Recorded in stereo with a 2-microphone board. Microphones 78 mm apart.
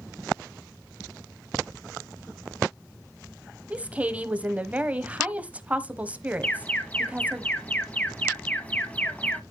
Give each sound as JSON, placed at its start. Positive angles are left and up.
{"t": 3.7, "sound": "a woman speaking", "side_deg": -20, "distance_m": 1.0}
{"t": 6.4, "sound": "an alarm", "side_deg": 15, "distance_m": 1.1}